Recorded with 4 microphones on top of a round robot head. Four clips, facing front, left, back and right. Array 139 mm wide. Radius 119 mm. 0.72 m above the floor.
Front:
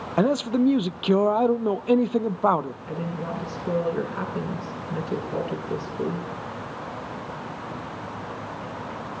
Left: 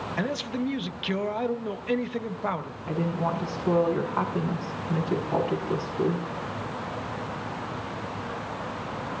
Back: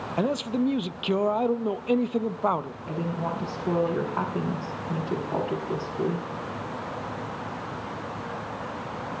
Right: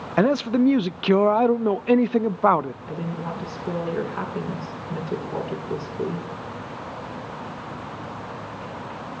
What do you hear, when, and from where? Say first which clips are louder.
0.2 s a man speaking: right 12 dB, front 5 dB; 70° right, 0.6 m
2.9 s a woman speaking: left 3 dB, back 1 dB; 130° left, 7.5 m